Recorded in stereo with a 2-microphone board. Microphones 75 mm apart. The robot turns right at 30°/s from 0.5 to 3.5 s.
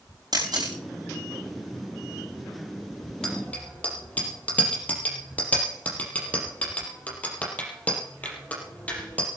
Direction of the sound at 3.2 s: 10° left (ahead or behind).